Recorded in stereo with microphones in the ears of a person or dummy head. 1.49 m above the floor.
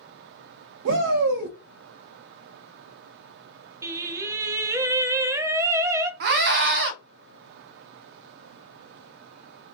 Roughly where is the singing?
Centre.